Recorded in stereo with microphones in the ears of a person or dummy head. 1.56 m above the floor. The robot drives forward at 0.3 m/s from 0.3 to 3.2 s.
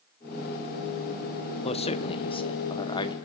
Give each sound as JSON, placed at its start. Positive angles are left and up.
{"t": 1.6, "sound": "a man speaking", "side_deg": 30, "distance_m": 1.1}